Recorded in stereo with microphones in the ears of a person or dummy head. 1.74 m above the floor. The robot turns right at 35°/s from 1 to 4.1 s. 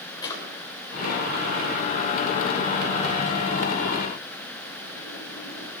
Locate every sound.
0.2 s a drawer: 20° left (ahead or behind), 3 m; by 5.7 s 45° left (ahead or behind), 3 m